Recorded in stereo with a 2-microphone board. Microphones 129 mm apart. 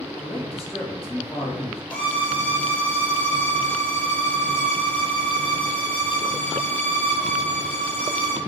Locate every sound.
0.2 s a man speaking: 50° left (ahead or behind), 1.7 m
1.9 s a violin: 15° left (ahead or behind), 1.3 m